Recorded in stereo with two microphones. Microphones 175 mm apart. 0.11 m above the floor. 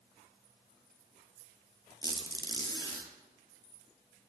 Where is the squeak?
25° left (ahead or behind), 1.1 m.